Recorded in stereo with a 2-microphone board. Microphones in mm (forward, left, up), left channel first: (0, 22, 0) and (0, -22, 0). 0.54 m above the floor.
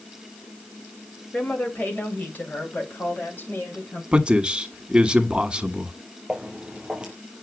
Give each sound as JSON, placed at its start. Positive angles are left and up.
{"t": 1.3, "sound": "a woman speaking", "side_deg": 35, "distance_m": 3.0}
{"t": 4.1, "sound": "a man speaking", "side_deg": -20, "distance_m": 1.6}
{"t": 6.3, "sound": "footsteps", "side_deg": -25, "distance_m": 4.0}